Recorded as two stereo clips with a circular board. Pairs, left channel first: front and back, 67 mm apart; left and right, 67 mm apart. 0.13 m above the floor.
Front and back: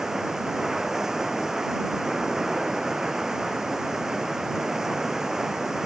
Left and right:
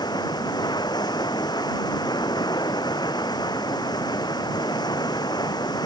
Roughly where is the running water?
Left.